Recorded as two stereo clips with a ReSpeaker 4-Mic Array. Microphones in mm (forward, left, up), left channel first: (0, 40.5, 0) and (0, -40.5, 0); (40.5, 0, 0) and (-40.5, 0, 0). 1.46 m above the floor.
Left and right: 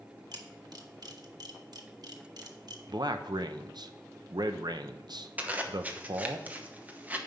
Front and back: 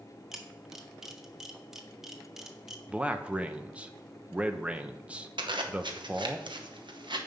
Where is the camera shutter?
95° right, 1.1 m.